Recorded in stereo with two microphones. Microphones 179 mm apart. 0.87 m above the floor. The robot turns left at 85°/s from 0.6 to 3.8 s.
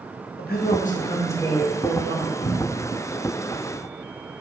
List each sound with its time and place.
0.4 s a man speaking: 80° left, 0.5 m; by 2.3 s 70° right, 0.5 m
2.4 s a cupboard door: centre (ahead or behind), 0.7 m; by 2.9 s 25° right (ahead or behind), 0.7 m